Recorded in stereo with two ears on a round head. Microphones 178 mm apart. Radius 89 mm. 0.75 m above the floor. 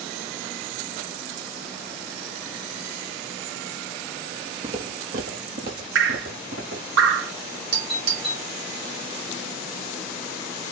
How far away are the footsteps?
About 0.9 m.